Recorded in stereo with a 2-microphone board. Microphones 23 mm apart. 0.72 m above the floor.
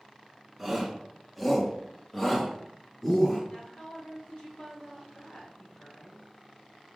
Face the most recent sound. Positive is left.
turn(degrees=65)  # may be behind; listen again after turning